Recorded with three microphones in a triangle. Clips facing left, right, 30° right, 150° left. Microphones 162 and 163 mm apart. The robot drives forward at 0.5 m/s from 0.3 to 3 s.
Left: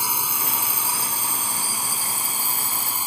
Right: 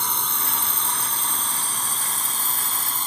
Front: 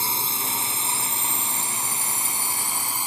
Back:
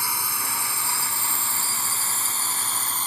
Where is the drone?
15° left; by 3.1 s 25° left.